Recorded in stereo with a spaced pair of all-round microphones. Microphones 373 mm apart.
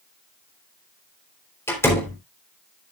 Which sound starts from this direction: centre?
A door slam, at 1.7 s.